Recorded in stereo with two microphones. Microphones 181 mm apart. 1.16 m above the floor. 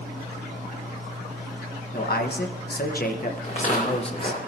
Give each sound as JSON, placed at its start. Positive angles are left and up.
{"t": 1.9, "sound": "a man speaking", "side_deg": 65, "distance_m": 1.4}
{"t": 3.4, "sound": "footsteps", "side_deg": 45, "distance_m": 4.5}